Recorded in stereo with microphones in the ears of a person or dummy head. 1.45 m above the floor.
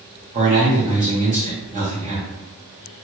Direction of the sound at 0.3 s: 40° right (ahead or behind).